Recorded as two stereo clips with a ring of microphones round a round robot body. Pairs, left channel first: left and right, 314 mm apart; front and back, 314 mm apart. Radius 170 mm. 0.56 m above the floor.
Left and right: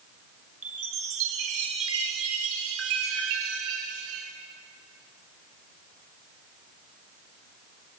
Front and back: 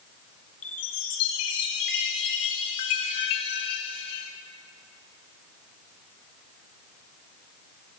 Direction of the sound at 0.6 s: 35° right.